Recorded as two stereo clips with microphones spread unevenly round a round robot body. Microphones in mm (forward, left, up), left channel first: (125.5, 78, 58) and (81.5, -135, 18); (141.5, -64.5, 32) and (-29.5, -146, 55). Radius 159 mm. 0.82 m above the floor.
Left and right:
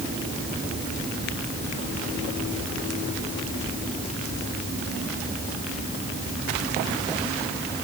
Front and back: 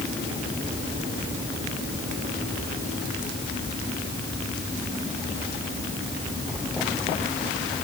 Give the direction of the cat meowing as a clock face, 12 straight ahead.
I don't hear a cat meowing.